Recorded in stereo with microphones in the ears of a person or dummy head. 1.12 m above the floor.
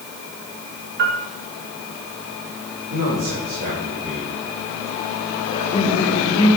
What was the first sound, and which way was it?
A piano, 55° right (ahead or behind).